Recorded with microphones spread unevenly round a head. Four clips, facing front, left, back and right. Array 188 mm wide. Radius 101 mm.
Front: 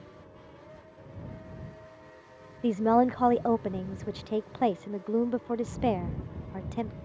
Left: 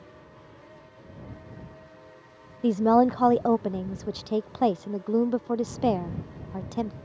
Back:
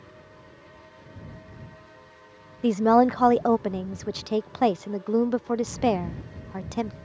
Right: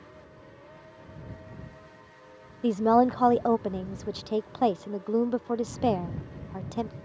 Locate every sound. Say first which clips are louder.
2.6 s a woman speaking: left 1 dB, back 5 dB; straight behind